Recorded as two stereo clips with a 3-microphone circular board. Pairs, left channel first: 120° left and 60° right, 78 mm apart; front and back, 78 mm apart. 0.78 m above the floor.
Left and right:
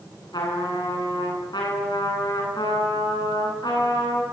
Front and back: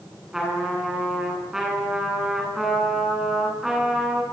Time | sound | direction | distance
0.3 | a trumpet | 95° left | 10 m